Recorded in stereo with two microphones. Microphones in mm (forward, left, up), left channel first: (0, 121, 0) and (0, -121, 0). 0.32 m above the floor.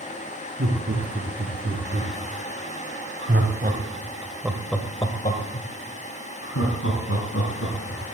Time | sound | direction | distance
0.6 | laughter | 70° right (ahead or behind) | 5.5 m